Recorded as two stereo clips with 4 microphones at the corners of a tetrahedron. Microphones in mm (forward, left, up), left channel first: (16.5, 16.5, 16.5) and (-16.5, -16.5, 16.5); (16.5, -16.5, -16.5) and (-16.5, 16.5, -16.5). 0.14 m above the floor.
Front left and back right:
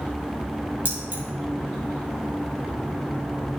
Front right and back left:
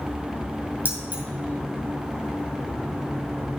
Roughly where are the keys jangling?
Behind.